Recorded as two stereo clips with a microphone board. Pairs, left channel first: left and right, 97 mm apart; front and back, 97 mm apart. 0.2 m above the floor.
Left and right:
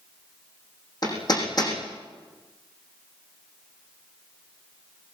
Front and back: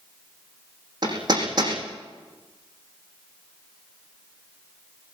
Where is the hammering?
135° left, 8 m.